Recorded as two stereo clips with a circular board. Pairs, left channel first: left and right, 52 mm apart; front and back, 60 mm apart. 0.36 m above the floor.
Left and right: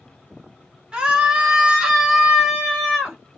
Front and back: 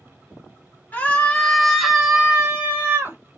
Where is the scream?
30° right, 1.0 m; by 3.2 s 170° right, 1.1 m.